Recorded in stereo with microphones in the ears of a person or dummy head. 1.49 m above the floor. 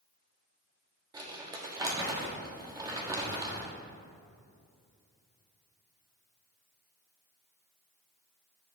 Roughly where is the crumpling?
Centre.